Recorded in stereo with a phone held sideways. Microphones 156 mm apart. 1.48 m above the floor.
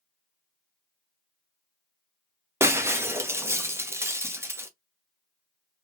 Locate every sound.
2.6 s breaking glass: 15° right (ahead or behind), 0.8 m